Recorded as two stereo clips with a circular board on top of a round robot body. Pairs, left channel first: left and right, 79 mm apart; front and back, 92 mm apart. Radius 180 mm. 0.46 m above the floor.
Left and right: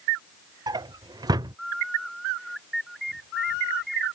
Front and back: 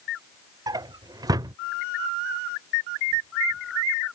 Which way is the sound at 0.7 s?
130° right.